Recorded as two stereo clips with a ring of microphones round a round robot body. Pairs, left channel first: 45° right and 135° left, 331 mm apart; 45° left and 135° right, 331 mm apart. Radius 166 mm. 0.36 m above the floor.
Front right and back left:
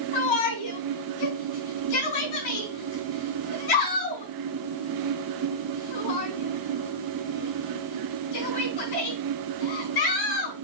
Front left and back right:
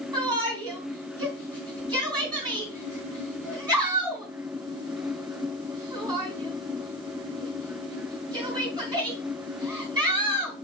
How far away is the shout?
About 4.5 m.